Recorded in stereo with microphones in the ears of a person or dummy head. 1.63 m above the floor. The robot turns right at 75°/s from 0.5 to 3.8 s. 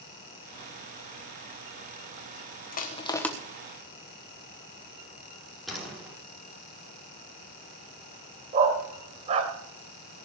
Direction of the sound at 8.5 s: 35° right (ahead or behind).